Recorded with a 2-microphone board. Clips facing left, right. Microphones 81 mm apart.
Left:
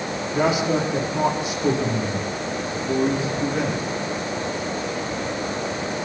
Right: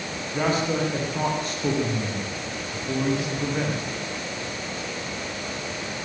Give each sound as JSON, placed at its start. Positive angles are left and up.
{"t": 0.3, "sound": "a man speaking", "side_deg": 10, "distance_m": 9.5}